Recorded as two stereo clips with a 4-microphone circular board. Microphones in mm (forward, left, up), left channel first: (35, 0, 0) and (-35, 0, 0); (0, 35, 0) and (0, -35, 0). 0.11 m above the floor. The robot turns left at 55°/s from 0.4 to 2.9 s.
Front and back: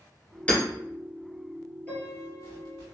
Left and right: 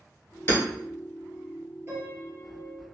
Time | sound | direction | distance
0.5 | hammering | 55° left | 1.6 m
1.9 | a piano | 55° right | 2.0 m